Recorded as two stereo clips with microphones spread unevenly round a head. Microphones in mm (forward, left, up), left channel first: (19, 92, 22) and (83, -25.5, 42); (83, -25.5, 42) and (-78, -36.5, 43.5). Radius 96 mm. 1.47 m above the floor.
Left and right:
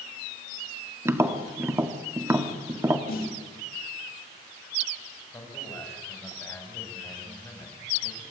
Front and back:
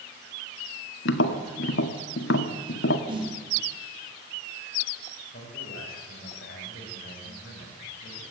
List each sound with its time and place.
1.1 s tapping: 5° left, 1.8 m
3.1 s a snare drum: 120° left, 3 m
5.3 s a man speaking: 45° left, 7 m